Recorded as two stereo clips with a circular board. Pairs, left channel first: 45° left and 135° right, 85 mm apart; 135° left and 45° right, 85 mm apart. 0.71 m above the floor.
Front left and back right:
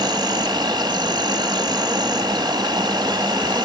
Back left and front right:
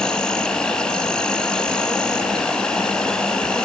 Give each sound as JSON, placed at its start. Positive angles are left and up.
{"t": 0.0, "sound": "an insect", "azimuth_deg": -145, "distance_m": 0.7}